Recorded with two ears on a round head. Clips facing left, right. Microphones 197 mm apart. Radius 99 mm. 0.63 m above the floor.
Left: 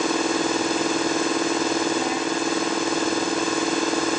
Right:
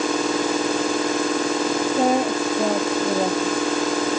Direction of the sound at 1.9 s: 40° right (ahead or behind).